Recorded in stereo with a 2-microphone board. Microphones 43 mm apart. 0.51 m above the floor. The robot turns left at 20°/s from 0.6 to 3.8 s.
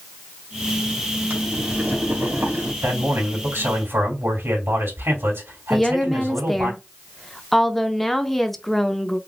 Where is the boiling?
40° right (ahead or behind), 2.5 m; by 2.7 s 60° right (ahead or behind), 2.5 m.